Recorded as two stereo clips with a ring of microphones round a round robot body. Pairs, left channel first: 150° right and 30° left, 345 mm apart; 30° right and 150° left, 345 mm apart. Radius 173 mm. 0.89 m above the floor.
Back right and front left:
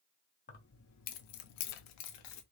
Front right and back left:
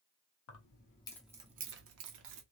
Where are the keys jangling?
80° right, 0.7 m; by 2.4 s 175° right, 0.9 m.